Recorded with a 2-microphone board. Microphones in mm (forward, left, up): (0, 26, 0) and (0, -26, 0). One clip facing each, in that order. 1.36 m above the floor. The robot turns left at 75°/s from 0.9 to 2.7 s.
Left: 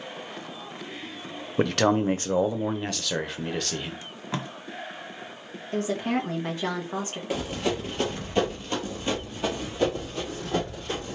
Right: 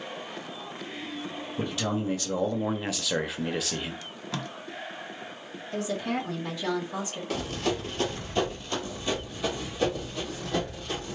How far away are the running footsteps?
About 1.4 m.